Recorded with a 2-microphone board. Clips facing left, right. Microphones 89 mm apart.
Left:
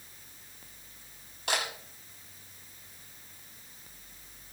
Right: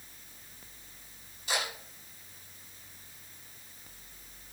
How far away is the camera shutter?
About 8 m.